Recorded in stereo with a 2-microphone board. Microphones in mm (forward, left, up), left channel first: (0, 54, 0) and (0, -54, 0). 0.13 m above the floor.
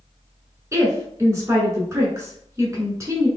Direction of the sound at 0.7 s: 25° right (ahead or behind).